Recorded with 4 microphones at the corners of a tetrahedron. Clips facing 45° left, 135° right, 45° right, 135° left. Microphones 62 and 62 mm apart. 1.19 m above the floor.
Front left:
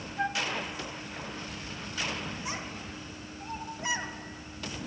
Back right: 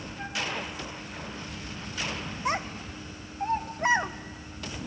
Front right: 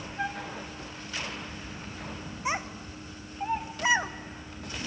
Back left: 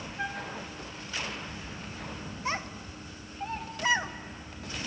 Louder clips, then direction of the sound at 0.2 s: Front left 4 dB, front right 2 dB; 25° left.